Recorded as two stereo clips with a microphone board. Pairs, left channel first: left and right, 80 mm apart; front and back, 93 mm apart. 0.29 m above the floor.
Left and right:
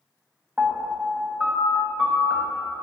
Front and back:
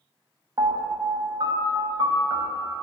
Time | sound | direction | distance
0.6 | a piano | 165° right | 0.8 m